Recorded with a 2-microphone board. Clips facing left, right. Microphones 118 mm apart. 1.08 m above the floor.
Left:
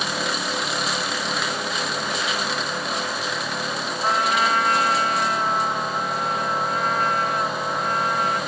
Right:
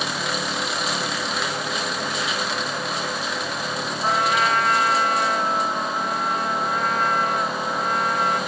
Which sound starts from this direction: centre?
A trumpet, at 4.0 s.